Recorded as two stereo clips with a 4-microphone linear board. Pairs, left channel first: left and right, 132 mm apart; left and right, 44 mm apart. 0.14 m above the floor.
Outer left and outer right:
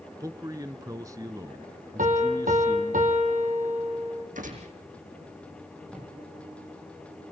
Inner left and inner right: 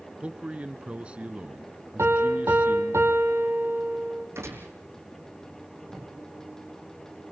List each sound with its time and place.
0.2 s a man speaking: 25° right (ahead or behind), 1.2 m
2.0 s a piano: 75° right (ahead or behind), 3 m
4.3 s a gunshot: 75° right (ahead or behind), 5 m
5.9 s a drawer: 5° right (ahead or behind), 8.5 m